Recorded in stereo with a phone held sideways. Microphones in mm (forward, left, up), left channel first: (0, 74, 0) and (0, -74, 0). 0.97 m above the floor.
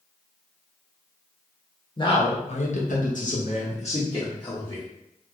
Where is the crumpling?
No crumpling in this recording.